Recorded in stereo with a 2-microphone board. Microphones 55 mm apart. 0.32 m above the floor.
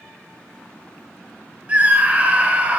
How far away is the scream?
About 0.9 m.